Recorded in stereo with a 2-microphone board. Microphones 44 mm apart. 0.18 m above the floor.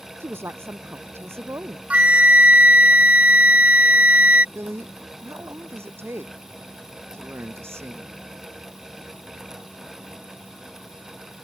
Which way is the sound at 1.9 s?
30° right (ahead or behind).